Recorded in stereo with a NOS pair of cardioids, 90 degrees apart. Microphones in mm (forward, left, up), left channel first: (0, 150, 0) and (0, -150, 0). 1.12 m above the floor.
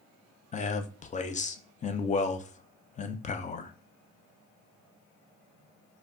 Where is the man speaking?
25° left, 0.5 m.